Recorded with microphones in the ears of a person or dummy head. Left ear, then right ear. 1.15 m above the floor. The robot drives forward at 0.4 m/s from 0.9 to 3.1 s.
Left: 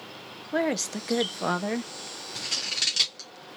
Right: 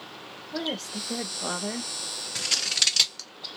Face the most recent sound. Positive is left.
turn(degrees=-25)  # may be behind; listen again after turning